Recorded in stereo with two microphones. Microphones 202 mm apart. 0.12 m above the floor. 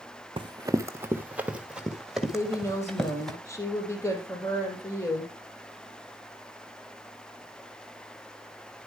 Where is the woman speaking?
15° left (ahead or behind), 3.5 m.